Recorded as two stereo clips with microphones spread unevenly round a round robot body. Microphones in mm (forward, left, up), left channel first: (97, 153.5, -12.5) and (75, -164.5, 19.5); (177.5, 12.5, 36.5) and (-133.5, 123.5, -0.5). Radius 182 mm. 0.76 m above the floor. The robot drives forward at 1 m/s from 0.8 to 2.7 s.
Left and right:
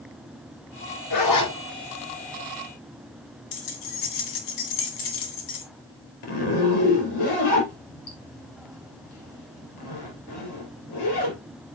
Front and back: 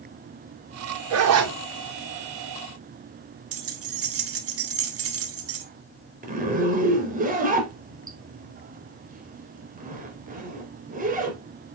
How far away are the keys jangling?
About 2.0 m.